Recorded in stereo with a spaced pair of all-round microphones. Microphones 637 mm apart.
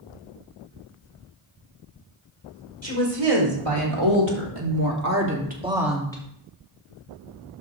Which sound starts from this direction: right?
A woman speaking, at 2.8 s.